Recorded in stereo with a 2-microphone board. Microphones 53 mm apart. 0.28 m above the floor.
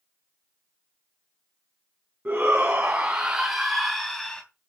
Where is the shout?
30° right (ahead or behind), 3 m; by 4.4 s 20° left (ahead or behind), 2.5 m.